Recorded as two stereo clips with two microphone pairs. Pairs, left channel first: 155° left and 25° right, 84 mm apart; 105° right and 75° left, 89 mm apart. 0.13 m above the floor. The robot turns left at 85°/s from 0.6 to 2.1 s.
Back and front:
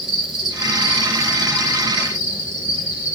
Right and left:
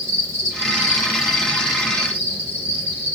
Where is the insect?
55° left, 1.4 m; by 3.1 s 75° right, 1.4 m.